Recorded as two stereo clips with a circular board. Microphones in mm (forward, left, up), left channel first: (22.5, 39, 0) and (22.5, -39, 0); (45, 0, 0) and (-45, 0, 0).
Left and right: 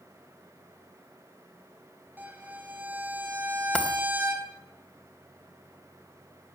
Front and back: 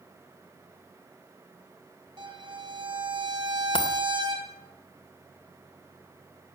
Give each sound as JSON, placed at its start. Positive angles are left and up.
{"t": 2.2, "sound": "a violin", "azimuth_deg": -155, "distance_m": 2.5}
{"t": 3.8, "sound": "a dropped coin", "azimuth_deg": 15, "distance_m": 2.5}